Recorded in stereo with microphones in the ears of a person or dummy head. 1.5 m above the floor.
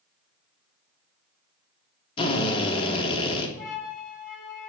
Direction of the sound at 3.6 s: 45° left (ahead or behind).